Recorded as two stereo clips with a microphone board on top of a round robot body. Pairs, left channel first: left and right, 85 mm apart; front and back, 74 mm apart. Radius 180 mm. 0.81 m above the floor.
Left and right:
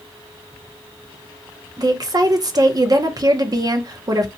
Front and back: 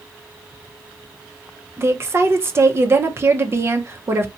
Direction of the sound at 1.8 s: 125° right.